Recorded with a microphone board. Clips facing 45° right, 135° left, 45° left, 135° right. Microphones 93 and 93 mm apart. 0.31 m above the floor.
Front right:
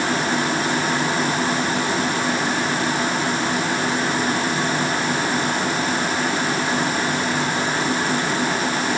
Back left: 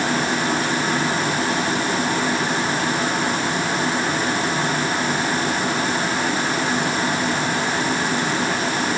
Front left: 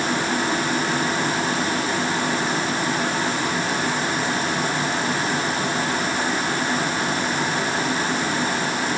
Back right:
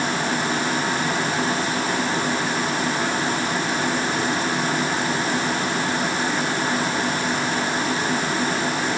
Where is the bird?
I don't hear a bird.